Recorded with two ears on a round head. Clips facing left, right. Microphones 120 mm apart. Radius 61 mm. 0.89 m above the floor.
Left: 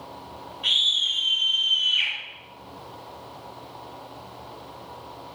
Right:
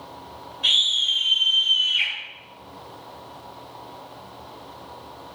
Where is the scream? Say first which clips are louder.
Right 2 dB; 65° right (ahead or behind), 3 m.